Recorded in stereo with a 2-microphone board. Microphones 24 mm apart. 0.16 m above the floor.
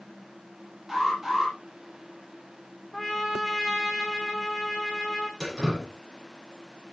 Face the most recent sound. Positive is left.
turn(degrees=0)  # may be behind; listen again after turning